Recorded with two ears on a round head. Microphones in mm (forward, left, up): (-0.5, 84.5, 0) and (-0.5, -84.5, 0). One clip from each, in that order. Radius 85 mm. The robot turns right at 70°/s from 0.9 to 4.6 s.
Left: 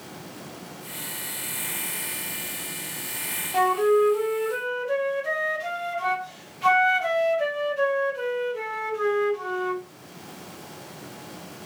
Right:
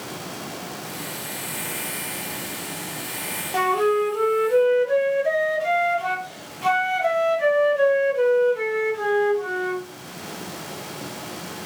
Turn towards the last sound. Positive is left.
turn(degrees=15)  # may be behind; listen again after turning